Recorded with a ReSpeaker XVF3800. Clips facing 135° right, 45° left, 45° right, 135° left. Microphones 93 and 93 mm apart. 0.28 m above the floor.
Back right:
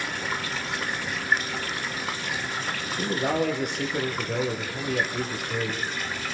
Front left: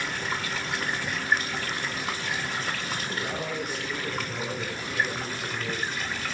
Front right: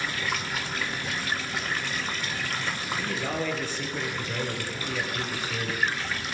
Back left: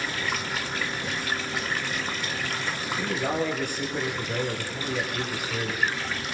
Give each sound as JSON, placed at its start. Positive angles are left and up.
{"t": 3.0, "sound": "a man speaking", "azimuth_deg": -150, "distance_m": 7.0}